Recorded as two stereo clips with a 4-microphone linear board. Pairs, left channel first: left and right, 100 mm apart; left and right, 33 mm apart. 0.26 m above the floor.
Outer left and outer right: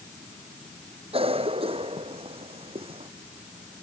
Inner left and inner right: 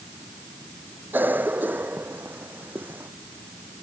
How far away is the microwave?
I don't hear a microwave.